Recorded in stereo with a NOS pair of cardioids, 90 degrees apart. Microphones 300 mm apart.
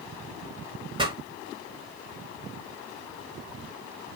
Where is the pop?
15° right, 5.5 m.